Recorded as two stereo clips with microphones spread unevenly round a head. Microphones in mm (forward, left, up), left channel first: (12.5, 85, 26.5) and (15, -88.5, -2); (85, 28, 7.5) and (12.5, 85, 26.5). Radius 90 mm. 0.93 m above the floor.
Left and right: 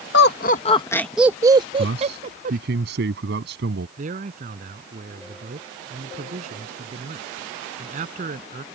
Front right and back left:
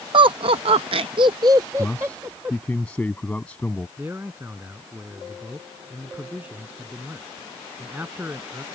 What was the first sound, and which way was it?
Laughter, 115° left.